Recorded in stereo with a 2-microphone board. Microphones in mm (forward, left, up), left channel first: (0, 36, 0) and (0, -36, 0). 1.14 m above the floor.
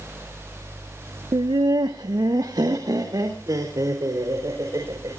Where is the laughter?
75° right (ahead or behind), 0.5 m; by 5.2 s 55° right (ahead or behind), 5.5 m.